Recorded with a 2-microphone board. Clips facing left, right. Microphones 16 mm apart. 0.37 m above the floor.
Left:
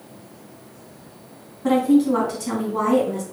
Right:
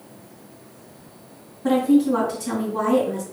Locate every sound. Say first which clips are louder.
1.6 s a woman speaking: left 1 dB; 15° left (ahead or behind), 3.5 m